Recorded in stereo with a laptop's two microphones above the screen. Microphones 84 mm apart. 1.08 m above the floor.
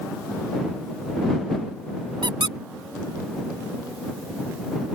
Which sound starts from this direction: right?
A squeak, at 2.2 s.